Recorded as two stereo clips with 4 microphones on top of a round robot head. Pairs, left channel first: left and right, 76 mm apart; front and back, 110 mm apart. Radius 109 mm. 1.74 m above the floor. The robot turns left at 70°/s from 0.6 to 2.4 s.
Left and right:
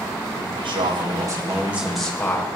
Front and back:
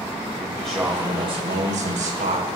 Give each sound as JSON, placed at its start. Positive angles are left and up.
{"t": 0.4, "sound": "a man speaking", "azimuth_deg": -85, "distance_m": 7.5}